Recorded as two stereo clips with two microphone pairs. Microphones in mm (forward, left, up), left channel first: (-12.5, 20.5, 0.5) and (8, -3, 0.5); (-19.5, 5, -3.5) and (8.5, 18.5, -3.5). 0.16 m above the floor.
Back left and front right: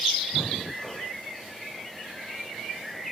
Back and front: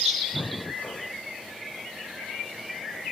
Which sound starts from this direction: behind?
Breathing, at 0.3 s.